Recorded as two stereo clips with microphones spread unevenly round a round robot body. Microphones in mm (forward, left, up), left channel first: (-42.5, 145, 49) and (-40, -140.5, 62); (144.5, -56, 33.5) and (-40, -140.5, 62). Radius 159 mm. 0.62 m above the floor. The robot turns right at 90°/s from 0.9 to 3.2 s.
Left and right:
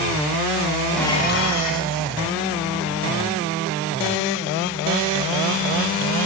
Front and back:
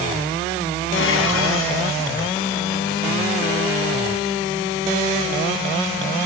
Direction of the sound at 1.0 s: Straight ahead.